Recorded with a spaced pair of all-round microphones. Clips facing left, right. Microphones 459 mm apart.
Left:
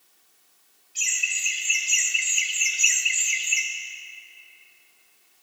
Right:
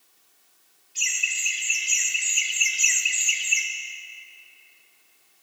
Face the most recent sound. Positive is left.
turn(degrees=-35)  # may be behind; listen again after turning